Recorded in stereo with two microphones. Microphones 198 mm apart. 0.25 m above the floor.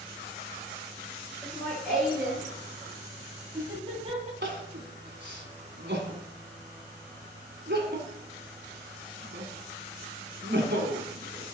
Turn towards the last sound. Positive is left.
turn(degrees=-60)  # may be behind; listen again after turning